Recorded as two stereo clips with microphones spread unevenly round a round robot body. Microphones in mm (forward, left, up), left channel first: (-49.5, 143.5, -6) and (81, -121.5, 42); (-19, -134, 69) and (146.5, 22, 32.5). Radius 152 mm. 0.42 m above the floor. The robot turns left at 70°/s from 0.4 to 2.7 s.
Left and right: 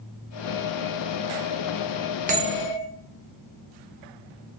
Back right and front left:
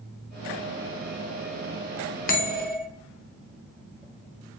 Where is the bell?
120° right, 0.8 m; by 2.9 s 150° right, 0.8 m.